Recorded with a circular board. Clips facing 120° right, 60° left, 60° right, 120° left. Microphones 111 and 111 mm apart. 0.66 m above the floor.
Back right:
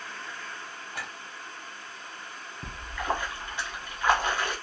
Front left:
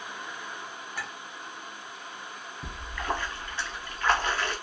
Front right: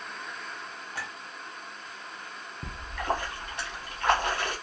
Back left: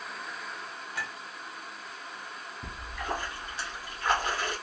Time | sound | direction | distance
0.9 | a clink | 110° right | 1.4 m
2.6 | a splash | 50° right | 0.8 m